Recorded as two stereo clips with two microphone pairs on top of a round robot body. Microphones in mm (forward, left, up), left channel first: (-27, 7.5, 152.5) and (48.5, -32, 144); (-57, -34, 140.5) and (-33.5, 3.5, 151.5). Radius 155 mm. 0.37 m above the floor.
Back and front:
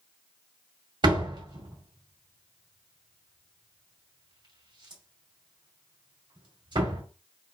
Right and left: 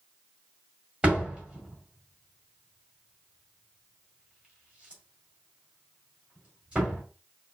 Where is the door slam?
15° right, 2.5 m.